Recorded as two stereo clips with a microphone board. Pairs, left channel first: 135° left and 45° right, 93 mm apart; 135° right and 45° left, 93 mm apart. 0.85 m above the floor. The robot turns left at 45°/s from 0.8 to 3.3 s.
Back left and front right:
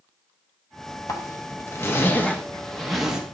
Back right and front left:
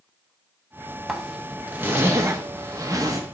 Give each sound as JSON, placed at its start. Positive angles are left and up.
{"t": 1.1, "sound": "a zipper", "azimuth_deg": 130, "distance_m": 0.9}